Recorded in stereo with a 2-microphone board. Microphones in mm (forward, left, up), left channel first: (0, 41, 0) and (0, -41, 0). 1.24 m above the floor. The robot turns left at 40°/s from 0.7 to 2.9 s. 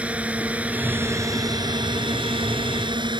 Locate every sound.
0.0 s a drone: 15° right (ahead or behind); by 3.2 s 70° right (ahead or behind)